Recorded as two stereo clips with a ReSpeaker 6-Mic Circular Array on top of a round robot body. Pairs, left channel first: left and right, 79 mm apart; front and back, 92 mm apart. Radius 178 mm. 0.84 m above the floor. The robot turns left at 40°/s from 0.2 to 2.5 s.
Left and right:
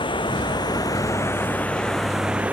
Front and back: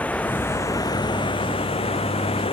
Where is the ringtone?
No ringtone in this recording.